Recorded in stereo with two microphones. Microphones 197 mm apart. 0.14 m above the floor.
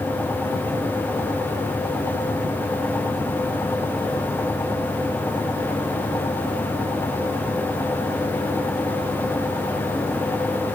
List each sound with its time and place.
Only background noise.